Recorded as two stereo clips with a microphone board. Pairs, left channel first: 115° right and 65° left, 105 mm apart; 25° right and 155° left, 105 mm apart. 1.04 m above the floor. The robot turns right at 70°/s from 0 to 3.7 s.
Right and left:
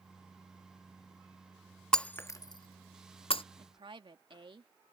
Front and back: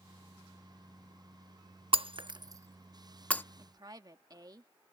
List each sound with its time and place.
1.9 s breaking glass: 165° left; by 3.4 s 90° right
3.6 s a woman speaking: 100° left; by 4.7 s 105° left